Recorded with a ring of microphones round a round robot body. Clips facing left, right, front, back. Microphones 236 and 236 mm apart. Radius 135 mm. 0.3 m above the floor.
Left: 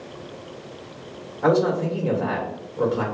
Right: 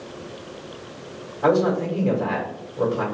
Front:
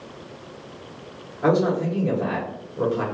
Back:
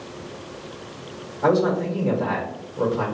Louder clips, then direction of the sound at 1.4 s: Even, even; 10° left.